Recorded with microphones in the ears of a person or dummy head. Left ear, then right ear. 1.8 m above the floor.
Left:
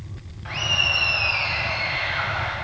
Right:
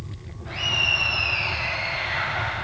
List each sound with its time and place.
0.5 s laughter: 50° left (ahead or behind), 1.3 m; by 2.5 s centre (ahead or behind), 0.9 m